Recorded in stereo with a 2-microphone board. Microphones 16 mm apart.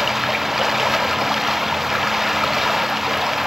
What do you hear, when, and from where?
0.0 s running water: 25° right (ahead or behind)